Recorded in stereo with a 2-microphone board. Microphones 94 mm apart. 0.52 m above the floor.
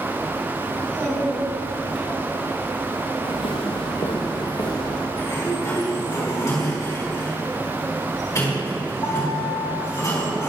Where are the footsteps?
80° left, 2.5 m; by 5.1 s 35° left (ahead or behind), 3.5 m.